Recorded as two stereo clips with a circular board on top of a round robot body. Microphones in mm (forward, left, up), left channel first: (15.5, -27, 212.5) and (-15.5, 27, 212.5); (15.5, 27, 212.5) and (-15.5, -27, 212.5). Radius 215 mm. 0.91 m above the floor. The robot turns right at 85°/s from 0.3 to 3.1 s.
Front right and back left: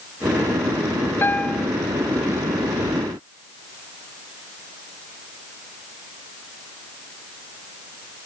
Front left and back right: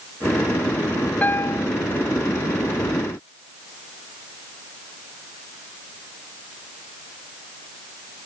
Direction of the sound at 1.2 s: 5° right.